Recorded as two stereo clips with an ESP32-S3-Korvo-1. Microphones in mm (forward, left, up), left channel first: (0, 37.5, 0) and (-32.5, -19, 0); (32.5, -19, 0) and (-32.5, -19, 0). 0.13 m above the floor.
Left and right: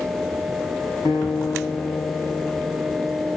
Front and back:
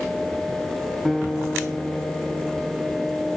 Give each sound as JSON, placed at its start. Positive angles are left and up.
{"t": 1.1, "sound": "a guitar", "azimuth_deg": 95, "distance_m": 3.5}